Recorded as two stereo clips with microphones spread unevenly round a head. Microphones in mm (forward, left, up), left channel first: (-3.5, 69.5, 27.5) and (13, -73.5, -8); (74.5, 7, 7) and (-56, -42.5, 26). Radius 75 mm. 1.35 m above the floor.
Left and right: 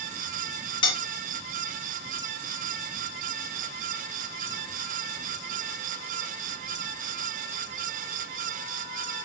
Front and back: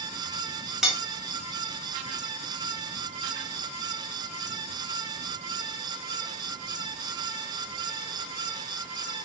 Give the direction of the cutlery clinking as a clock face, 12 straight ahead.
8 o'clock.